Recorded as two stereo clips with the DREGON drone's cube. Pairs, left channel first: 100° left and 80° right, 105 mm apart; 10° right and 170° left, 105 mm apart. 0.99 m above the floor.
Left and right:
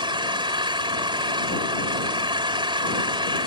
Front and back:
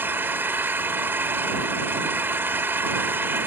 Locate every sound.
0.0 s an engine running: 120° right